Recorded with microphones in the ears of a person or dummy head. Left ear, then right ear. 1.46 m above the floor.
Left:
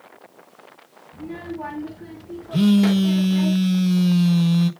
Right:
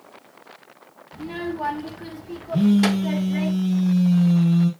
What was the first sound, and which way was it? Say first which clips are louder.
A child speaking: right 3 dB; 30° right (ahead or behind).